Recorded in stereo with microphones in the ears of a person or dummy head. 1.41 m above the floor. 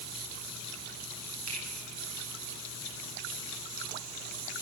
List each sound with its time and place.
1.5 s a finger snap: 85° right, 6.5 m